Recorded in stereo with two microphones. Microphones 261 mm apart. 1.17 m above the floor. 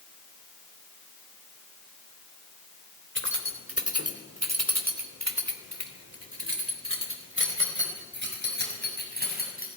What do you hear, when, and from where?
3.1 s keys jangling: 45° right (ahead or behind), 3 m; by 9.7 s 35° right (ahead or behind), 6.5 m